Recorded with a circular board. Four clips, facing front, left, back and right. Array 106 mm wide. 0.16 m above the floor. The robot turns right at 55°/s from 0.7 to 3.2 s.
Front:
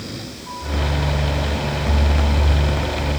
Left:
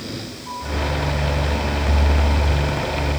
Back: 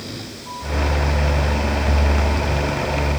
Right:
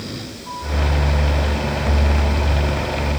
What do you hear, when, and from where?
Only background noise.